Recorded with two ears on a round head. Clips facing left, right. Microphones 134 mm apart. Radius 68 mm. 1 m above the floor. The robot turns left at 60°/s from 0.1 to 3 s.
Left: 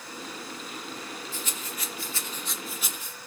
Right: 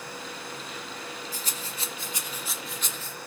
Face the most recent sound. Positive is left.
turn(degrees=15)  # may be behind; listen again after turning